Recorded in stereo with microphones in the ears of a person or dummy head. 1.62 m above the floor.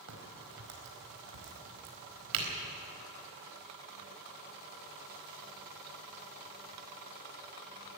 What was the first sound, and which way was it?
A crack, 70° right (ahead or behind).